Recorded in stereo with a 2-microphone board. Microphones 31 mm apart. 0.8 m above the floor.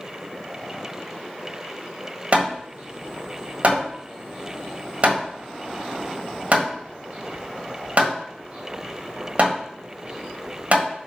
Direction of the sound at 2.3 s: 50° right (ahead or behind).